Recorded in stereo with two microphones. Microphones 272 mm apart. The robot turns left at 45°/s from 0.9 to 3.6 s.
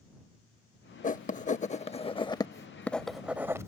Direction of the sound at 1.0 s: 30° left (ahead or behind).